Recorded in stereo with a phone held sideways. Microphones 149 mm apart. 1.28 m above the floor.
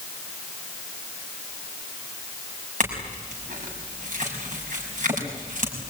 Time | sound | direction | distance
2.8 | a clink | 55° right (ahead or behind) | 6 m